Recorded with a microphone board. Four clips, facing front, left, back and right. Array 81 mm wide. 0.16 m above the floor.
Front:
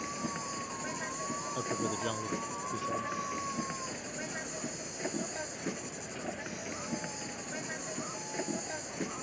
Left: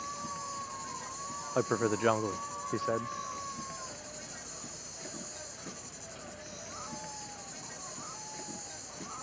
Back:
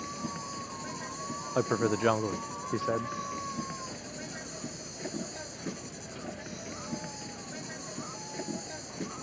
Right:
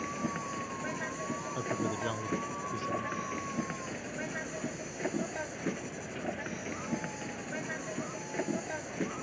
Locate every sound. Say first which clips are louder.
0.0 s an insect: right 4 dB, even; 75° right
1.6 s a man speaking: left 7 dB, back 9 dB; 130° left